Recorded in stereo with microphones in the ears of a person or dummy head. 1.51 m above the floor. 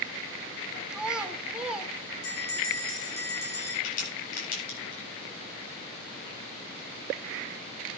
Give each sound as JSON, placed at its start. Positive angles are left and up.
{"t": 0.9, "sound": "a child speaking", "side_deg": 0, "distance_m": 1.8}
{"t": 2.2, "sound": "a bell", "side_deg": 85, "distance_m": 6.0}
{"t": 3.8, "sound": "a crack", "side_deg": 55, "distance_m": 9.0}